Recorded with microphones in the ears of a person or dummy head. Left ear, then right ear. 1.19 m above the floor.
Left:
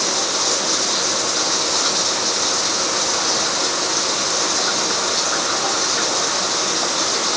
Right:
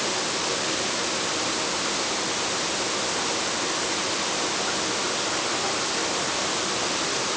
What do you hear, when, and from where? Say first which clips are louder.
0.0 s running water: left 6 dB; 90° left